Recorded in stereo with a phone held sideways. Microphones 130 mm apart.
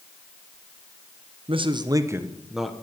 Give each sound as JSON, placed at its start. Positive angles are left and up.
{"t": 1.5, "sound": "a man speaking", "side_deg": -45, "distance_m": 1.0}